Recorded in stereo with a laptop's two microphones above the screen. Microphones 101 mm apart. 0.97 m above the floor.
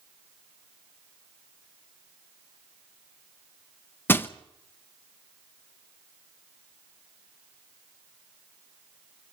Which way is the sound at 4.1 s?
20° left (ahead or behind).